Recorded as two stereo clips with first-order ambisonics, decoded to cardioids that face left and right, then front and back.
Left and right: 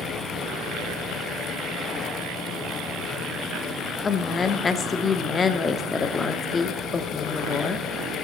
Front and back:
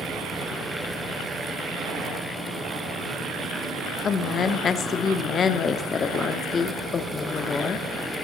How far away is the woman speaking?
About 0.7 m.